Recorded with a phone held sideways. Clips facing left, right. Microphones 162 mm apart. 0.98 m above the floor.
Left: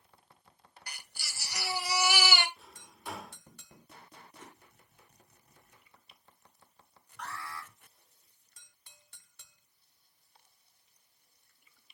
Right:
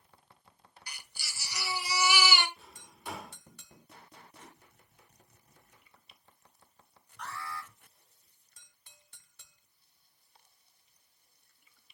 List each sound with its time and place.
0.9 s a baby crying: 60° left (ahead or behind), 1.6 m
2.6 s a drawer: 5° right (ahead or behind), 1.0 m
4.4 s a whoosh: 80° left, 3 m
7.2 s an alarm: 65° left (ahead or behind), 3.5 m